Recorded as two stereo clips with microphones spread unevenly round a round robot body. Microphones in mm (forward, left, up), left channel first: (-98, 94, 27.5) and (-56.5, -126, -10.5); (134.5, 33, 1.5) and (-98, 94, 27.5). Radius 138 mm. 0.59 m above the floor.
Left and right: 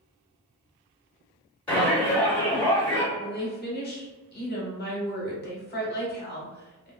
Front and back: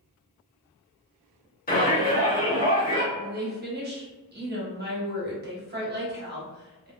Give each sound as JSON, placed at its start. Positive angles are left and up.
{"t": 1.7, "sound": "a shout", "azimuth_deg": 10, "distance_m": 1.6}
{"t": 3.1, "sound": "a woman speaking", "azimuth_deg": 135, "distance_m": 1.0}